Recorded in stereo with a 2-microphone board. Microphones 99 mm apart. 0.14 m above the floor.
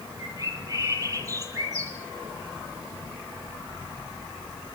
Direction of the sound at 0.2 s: 35° right (ahead or behind).